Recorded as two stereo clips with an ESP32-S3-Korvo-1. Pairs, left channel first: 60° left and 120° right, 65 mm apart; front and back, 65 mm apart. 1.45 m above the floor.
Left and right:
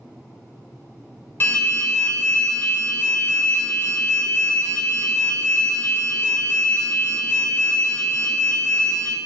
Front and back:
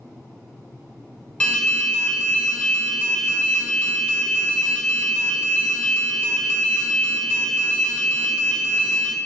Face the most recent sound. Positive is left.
turn(degrees=55)